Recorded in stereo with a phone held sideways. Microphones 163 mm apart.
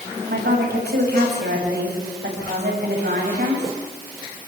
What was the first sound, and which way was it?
A woman speaking, 85° right.